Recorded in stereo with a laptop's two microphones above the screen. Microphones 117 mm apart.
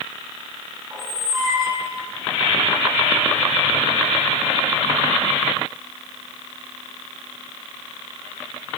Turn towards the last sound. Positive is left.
turn(degrees=-35)  # may be behind; listen again after turning